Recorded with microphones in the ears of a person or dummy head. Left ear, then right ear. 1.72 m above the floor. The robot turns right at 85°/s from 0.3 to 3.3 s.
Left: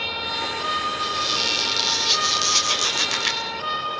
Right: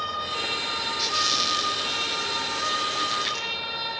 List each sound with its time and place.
1.0 s a squeak: 30° right, 3 m; by 3.4 s 165° left, 3 m